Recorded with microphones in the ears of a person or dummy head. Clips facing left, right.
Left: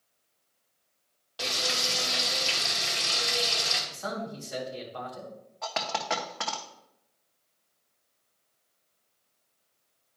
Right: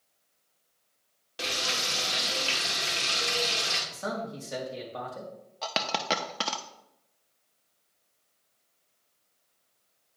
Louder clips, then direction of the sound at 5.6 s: Right 1 dB; 30° right (ahead or behind).